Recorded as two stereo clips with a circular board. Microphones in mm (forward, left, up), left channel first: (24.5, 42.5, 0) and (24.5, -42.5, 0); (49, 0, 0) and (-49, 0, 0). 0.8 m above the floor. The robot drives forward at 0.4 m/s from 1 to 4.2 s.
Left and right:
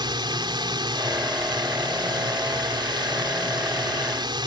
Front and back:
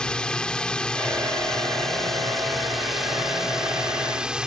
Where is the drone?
80° right; by 4.5 s 100° right.